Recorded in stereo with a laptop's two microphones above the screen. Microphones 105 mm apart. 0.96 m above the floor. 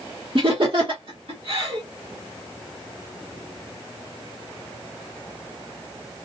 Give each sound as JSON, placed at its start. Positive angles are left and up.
{"t": 0.3, "sound": "laughter", "side_deg": -50, "distance_m": 1.1}